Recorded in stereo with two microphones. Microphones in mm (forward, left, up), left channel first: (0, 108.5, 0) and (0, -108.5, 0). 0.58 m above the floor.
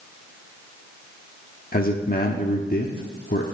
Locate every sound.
1.7 s a man speaking: 45° left (ahead or behind), 1.1 m